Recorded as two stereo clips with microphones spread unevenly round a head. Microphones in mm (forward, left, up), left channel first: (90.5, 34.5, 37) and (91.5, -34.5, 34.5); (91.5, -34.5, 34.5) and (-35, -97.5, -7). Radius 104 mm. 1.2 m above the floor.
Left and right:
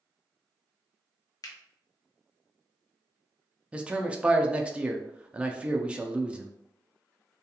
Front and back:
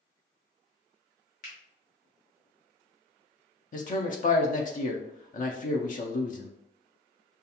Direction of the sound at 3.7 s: 15° right.